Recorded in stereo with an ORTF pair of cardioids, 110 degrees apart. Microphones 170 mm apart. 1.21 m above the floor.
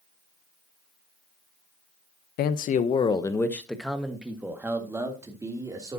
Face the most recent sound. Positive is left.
turn(degrees=-20)